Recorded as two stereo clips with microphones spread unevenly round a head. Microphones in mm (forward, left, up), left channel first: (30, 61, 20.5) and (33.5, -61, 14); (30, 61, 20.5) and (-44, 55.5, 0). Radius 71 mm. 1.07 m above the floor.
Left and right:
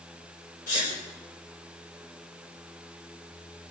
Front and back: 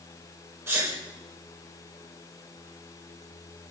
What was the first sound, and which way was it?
A sneeze, 125° left.